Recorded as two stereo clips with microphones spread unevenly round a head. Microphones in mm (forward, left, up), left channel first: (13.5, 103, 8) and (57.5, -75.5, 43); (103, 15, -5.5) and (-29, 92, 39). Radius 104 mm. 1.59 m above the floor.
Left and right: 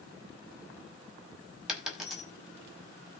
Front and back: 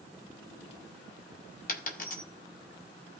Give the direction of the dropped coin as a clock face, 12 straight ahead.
12 o'clock.